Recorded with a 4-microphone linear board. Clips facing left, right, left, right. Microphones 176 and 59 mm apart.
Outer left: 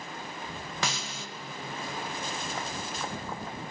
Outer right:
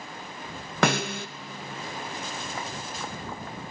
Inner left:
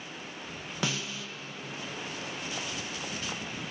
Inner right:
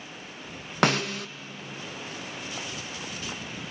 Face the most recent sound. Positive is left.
turn(degrees=-60)  # may be behind; listen again after turning